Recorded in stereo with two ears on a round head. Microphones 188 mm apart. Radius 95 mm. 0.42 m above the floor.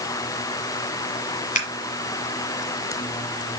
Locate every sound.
1.6 s scissors: 35° left (ahead or behind), 1.8 m